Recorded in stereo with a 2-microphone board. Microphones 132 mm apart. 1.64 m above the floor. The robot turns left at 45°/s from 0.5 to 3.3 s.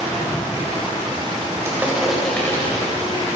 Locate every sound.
1.6 s crushing: 20° right (ahead or behind), 6.5 m; by 2.9 s 35° left (ahead or behind), 6.5 m